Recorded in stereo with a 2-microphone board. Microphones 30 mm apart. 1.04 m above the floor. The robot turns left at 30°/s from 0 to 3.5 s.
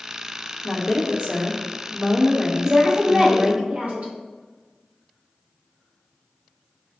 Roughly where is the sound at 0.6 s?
Left.